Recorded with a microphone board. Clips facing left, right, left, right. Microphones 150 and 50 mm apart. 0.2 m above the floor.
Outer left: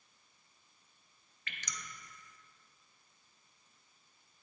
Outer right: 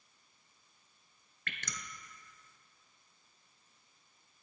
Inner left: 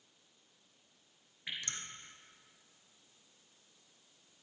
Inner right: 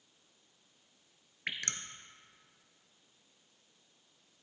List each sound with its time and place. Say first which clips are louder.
1.5 s dripping: outer right 2 dB, inner right 4 dB; 60° right (ahead or behind), 1.0 m